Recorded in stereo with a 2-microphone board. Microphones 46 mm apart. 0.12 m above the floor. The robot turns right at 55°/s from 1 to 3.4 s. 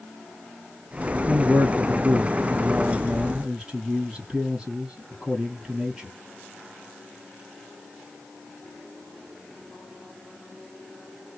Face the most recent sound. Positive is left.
turn(degrees=-20)